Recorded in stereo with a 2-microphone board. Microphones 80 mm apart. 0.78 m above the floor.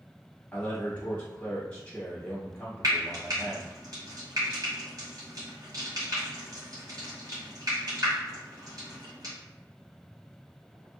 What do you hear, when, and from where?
0.5 s a man speaking: 15° left (ahead or behind), 1.0 m
2.8 s frying: 50° right (ahead or behind), 1.5 m